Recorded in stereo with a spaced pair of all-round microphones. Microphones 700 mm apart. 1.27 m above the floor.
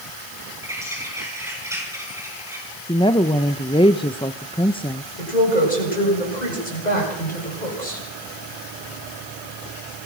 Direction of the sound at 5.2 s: 85° left.